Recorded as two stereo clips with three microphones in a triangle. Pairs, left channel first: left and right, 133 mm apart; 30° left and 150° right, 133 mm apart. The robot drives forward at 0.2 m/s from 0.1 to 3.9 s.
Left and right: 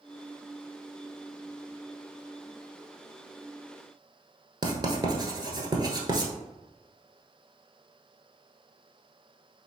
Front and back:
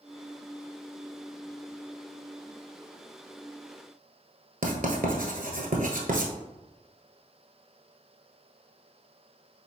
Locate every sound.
4.6 s writing: 150° right, 1.0 m